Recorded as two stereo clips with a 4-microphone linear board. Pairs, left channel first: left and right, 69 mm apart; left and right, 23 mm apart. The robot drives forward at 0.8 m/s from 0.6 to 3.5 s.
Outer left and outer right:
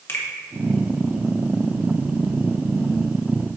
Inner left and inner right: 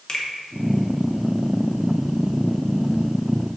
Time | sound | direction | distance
0.1 | a finger snap | 40° left (ahead or behind) | 1.4 m